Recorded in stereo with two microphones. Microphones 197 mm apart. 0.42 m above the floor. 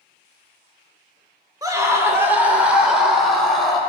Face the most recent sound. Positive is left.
turn(degrees=0)  # may be behind; listen again after turning